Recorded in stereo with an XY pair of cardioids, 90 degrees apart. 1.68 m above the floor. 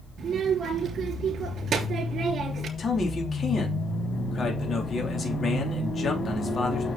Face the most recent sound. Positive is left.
turn(degrees=45)